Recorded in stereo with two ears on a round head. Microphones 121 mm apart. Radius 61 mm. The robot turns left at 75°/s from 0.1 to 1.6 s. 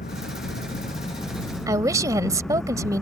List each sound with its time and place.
0.0 s an engine running: 115° left; by 3.0 s 5° left
1.7 s a woman speaking: 25° right (ahead or behind)